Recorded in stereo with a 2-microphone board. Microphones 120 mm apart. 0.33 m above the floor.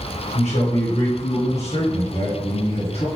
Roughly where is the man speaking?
Left.